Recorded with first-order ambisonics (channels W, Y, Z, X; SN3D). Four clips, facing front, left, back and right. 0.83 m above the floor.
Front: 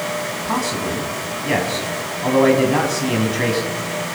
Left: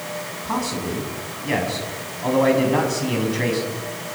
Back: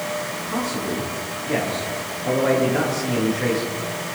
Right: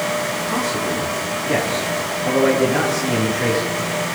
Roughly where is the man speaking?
Ahead left.